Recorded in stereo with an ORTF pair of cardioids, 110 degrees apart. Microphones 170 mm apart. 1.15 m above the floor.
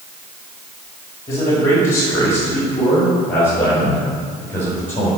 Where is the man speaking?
20° left, 3 m; by 5.1 s 10° left, 6 m.